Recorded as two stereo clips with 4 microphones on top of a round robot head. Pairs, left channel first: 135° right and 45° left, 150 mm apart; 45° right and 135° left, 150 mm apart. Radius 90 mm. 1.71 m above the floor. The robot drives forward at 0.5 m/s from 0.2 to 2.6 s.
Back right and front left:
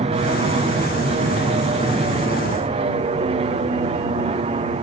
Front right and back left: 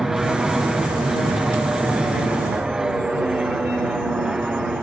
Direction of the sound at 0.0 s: 50° left.